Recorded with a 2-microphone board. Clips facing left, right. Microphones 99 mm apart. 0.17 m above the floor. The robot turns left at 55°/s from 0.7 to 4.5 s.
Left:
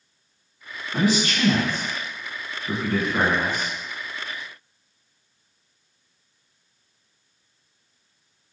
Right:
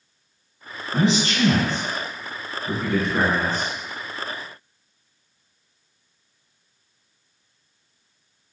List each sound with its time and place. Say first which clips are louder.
0.9 s a man speaking: right 1 dB; 25° right (ahead or behind), 1.1 m; by 3.7 s 15° left (ahead or behind), 1.1 m